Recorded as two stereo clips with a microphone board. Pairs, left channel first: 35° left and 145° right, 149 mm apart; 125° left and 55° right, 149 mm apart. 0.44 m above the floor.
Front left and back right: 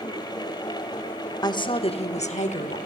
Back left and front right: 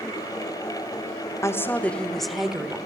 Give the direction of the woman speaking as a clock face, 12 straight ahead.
10 o'clock.